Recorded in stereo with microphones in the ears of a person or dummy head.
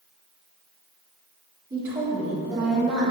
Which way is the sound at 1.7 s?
20° right (ahead or behind).